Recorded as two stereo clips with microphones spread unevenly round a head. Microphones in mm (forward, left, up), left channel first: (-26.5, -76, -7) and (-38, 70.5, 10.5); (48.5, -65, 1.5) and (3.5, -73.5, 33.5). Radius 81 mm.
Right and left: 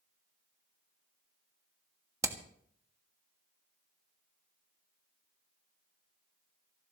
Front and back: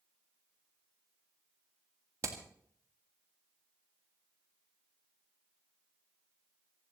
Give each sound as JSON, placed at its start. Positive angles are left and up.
{"t": 2.2, "sound": "hammering", "azimuth_deg": 160, "distance_m": 1.6}